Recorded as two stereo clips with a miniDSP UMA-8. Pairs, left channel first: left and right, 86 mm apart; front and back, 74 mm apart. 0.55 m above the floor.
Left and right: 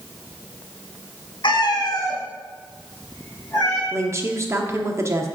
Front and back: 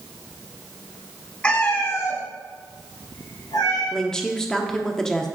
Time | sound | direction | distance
1.4 | a cat meowing | 75° left | 0.9 m
3.9 | a woman speaking | 75° right | 0.8 m